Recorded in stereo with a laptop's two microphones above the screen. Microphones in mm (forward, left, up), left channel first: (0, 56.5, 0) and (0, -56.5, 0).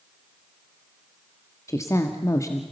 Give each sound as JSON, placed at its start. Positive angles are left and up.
{"t": 1.7, "sound": "a woman speaking", "side_deg": 25, "distance_m": 1.7}